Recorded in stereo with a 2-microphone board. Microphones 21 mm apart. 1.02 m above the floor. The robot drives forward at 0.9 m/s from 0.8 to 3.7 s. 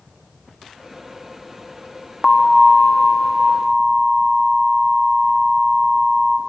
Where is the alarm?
10° left (ahead or behind), 1.2 m; by 6.4 s 5° left (ahead or behind), 2.5 m.